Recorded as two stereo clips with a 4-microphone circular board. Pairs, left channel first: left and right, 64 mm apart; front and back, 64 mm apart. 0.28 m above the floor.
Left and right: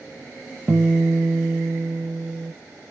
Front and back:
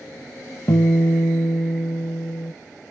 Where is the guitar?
30° right, 0.6 m.